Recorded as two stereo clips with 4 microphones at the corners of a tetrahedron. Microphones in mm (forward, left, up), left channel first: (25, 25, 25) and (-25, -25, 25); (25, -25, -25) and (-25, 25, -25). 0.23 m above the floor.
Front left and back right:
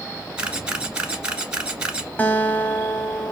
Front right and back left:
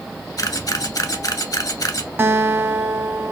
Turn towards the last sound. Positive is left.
turn(degrees=100)